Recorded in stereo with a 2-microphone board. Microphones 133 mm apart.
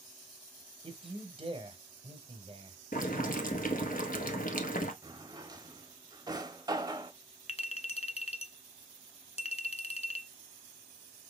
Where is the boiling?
85° left, 1.0 m.